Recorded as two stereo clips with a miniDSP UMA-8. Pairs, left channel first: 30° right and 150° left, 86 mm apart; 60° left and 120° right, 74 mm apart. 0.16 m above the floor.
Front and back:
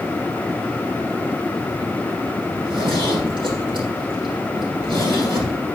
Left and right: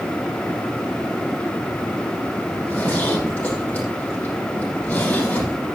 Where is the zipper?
130° left, 6.5 m.